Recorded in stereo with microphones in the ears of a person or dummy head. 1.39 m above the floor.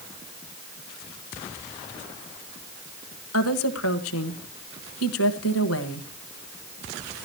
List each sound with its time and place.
3.3 s a woman speaking: 75° left (ahead or behind), 1.3 m